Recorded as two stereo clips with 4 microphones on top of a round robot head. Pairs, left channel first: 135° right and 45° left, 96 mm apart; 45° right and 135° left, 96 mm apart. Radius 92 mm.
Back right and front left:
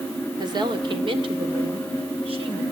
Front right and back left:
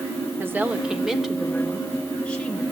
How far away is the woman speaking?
About 1.9 m.